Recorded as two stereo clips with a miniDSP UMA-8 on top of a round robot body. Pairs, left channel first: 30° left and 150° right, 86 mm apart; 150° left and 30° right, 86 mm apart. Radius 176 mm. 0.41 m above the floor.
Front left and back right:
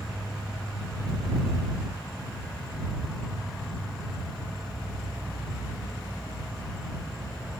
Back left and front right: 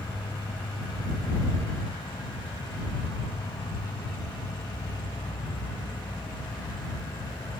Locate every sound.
0.0 s an insect: 120° left